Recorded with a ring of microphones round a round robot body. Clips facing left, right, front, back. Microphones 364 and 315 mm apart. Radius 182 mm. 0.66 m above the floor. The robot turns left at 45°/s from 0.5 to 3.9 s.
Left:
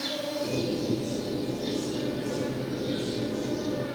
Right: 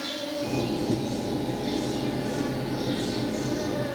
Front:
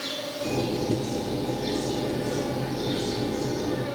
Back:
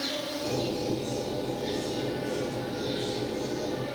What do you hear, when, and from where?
0.0 s an insect: 85° left, 3.5 m; by 4.0 s 70° right, 3.5 m